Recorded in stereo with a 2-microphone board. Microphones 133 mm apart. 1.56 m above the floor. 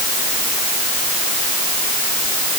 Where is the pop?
I don't hear a pop.